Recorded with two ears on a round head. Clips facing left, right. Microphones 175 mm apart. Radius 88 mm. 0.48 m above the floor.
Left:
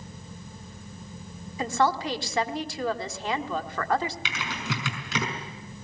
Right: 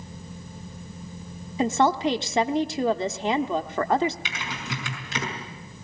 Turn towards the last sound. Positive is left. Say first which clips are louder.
# left 1 dB
turn(degrees=65)  # may be behind; listen again after turning